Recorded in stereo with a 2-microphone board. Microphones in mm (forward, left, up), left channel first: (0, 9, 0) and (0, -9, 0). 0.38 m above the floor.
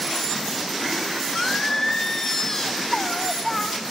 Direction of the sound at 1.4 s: 25° left (ahead or behind).